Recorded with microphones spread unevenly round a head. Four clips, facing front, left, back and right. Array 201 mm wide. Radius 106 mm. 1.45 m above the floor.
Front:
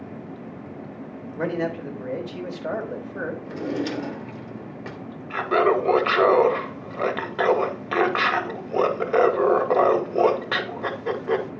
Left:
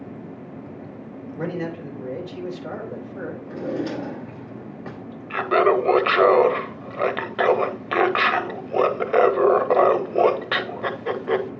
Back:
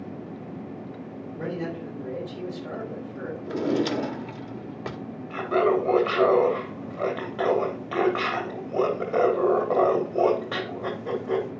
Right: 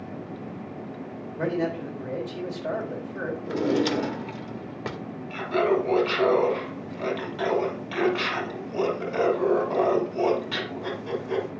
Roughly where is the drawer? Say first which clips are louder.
Right 4 dB, back 6 dB; behind right.